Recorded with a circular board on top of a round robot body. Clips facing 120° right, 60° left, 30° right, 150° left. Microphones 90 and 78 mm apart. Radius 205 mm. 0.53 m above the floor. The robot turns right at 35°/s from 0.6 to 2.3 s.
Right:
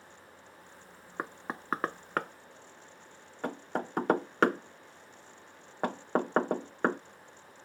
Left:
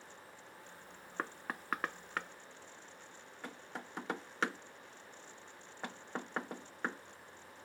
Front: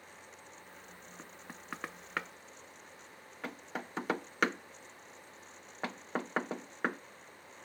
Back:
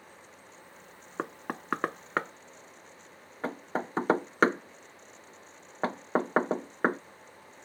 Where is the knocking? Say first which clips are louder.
Right 3 dB, back 18 dB; 165° left; by 7.0 s 155° right.